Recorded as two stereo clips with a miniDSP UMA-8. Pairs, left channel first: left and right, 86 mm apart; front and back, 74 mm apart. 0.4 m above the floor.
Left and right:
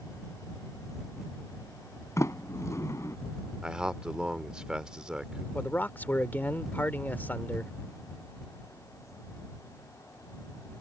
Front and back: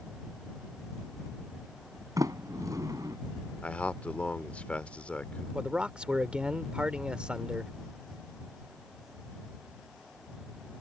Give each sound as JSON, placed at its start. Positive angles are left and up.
{"t": 2.2, "sound": "a sliding door", "azimuth_deg": 145}
{"t": 3.6, "sound": "a man speaking", "azimuth_deg": -25}
{"t": 5.5, "sound": "a man speaking", "azimuth_deg": 125}